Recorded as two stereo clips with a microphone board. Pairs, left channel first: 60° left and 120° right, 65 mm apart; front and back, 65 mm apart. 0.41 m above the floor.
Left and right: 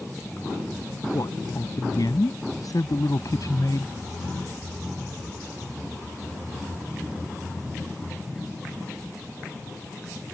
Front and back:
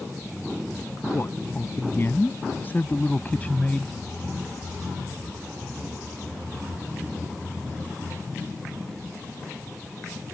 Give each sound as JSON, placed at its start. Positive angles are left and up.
{"t": 1.1, "sound": "a man speaking", "azimuth_deg": 50}